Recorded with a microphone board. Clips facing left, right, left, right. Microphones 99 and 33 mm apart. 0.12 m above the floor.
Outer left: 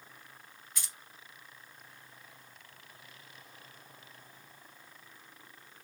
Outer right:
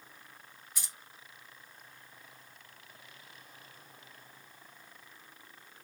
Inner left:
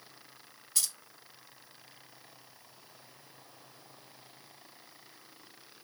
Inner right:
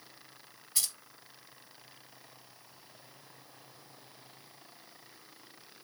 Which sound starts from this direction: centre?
Keys jangling, at 0.8 s.